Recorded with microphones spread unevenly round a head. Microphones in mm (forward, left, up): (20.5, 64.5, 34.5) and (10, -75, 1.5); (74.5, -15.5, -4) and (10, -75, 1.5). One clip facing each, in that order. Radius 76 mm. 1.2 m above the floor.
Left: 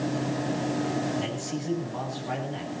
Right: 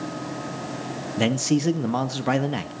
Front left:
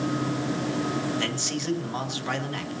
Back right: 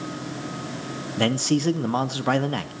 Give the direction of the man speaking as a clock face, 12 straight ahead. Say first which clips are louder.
Right 9 dB, back right 8 dB; 3 o'clock.